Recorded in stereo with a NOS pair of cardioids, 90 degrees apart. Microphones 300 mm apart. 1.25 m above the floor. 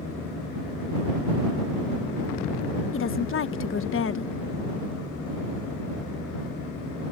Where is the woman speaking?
40° left.